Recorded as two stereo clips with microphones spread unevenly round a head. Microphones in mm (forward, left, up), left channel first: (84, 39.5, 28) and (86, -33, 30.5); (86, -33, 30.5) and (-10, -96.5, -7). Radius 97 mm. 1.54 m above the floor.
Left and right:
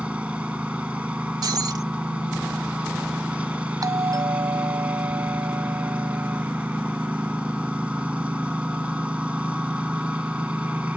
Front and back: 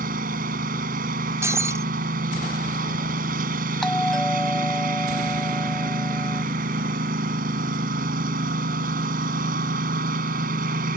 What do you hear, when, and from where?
0.0 s a lawn mower: 170° right
1.4 s breaking glass: 75° right
3.8 s a doorbell: 50° right